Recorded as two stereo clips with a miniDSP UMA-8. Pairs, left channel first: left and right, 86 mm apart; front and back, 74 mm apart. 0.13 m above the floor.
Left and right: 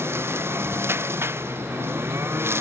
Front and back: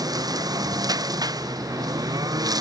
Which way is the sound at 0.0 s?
150° right.